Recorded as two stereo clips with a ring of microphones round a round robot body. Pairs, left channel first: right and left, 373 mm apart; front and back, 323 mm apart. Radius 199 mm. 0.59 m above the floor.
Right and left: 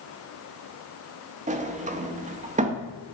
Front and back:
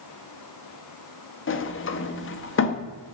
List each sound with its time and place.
1.5 s a sliding door: 30° left, 1.0 m